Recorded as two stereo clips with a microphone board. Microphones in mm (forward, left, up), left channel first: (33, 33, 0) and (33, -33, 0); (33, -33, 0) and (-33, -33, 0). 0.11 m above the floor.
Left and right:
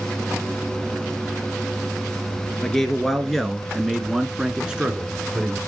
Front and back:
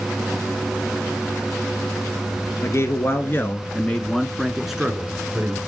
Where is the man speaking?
10° left, 1.9 m; by 5.6 s 145° right, 1.6 m.